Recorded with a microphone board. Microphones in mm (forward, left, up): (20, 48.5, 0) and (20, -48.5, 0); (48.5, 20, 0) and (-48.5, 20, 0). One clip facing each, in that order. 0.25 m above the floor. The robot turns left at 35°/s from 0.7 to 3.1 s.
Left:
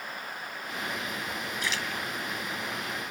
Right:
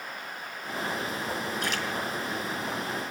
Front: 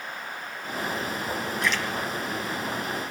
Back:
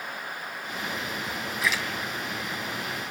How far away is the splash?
About 2.5 m.